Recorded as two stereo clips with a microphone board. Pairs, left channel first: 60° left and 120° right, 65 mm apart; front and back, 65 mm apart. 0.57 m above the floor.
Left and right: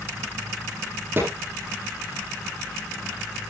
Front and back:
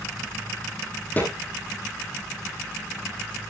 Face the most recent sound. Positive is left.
turn(degrees=-65)